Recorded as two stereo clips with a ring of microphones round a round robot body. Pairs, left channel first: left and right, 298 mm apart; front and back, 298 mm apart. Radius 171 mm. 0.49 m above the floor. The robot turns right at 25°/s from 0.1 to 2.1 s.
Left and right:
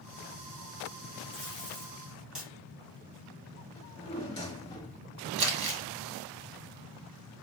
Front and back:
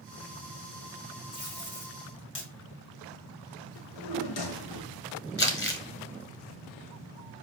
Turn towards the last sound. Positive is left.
turn(degrees=-55)